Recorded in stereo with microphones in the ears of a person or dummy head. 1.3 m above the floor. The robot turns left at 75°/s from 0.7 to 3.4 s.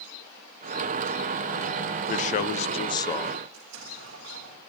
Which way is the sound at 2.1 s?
105° left.